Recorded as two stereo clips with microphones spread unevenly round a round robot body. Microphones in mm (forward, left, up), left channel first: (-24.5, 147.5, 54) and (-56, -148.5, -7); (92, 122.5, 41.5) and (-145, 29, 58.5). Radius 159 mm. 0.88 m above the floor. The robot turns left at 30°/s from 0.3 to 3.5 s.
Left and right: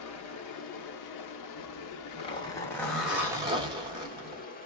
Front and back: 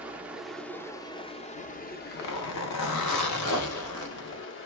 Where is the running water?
115° left, 0.8 m; by 4.7 s 15° left, 0.8 m.